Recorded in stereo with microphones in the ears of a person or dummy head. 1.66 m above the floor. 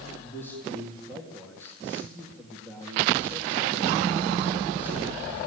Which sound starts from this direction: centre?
A man speaking, at 0.2 s.